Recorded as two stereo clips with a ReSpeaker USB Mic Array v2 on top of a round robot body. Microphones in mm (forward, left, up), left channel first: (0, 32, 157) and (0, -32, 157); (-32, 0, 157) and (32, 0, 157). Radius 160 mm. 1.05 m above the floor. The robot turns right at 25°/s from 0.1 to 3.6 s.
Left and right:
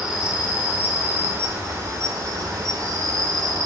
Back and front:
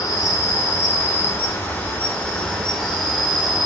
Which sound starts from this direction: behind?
An insect, at 0.0 s.